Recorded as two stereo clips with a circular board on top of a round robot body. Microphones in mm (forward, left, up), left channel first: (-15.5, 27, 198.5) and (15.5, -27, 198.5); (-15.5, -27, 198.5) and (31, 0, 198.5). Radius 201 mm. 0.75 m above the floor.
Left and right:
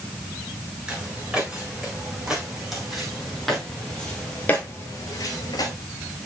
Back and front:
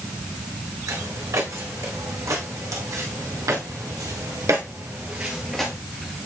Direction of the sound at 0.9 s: 20° left.